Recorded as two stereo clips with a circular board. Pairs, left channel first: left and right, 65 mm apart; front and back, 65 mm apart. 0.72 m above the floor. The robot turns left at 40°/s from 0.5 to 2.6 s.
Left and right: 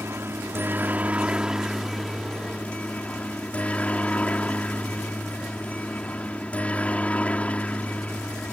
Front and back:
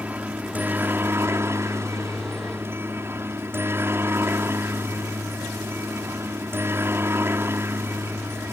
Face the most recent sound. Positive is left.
turn(degrees=150)